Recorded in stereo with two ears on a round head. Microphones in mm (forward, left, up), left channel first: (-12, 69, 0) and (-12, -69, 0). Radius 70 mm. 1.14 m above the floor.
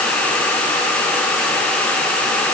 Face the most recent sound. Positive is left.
No sound to turn to.